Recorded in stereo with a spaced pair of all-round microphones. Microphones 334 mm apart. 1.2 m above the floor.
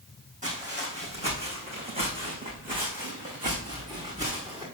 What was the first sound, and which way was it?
Footsteps, 20° right (ahead or behind).